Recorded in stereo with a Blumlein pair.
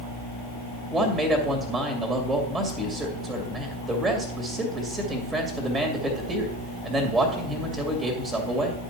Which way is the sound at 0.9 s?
10° right.